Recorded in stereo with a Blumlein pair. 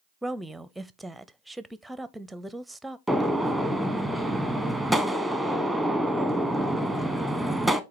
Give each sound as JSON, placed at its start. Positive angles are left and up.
{"t": 0.2, "sound": "a woman speaking", "azimuth_deg": -5, "distance_m": 0.6}
{"t": 3.1, "sound": "a gunshot", "azimuth_deg": 0, "distance_m": 0.9}